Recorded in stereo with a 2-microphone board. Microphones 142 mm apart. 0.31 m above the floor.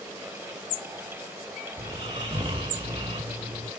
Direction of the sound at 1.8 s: 40° right (ahead or behind).